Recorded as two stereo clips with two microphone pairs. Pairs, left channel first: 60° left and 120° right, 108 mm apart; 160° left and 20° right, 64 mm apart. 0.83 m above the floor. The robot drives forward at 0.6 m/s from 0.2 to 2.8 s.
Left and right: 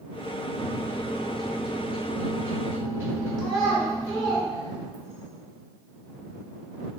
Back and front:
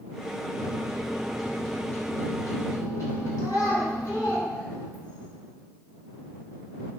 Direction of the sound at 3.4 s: 145° left.